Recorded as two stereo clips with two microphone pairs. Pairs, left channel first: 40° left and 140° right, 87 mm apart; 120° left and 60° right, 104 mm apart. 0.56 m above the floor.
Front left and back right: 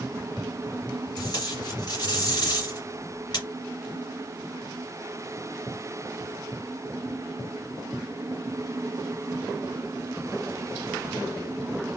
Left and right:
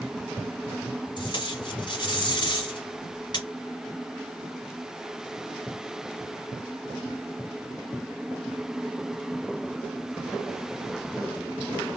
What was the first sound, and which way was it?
Tape being pulled, 75° left.